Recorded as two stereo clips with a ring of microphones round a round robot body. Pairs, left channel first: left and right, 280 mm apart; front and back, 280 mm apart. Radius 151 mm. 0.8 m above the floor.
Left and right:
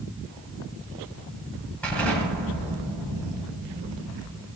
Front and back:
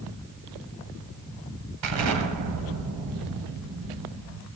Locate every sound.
1.8 s an explosion: 175° left, 2.5 m